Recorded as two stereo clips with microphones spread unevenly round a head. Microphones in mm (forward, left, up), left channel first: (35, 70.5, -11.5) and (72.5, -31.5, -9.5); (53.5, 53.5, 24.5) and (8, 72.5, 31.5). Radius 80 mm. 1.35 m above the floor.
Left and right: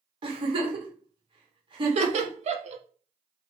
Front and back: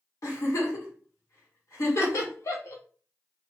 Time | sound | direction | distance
0.2 | a giggle | 30° right | 1.3 m
1.9 | laughter | 55° right | 0.7 m